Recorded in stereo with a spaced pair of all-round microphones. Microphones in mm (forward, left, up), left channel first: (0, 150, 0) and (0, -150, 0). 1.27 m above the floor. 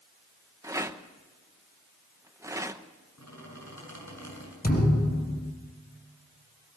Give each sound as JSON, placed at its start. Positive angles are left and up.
{"t": 0.6, "sound": "a rattle", "side_deg": -10, "distance_m": 0.8}
{"t": 3.2, "sound": "a squeak", "side_deg": 70, "distance_m": 7.0}
{"t": 4.6, "sound": "a thud", "side_deg": 30, "distance_m": 3.0}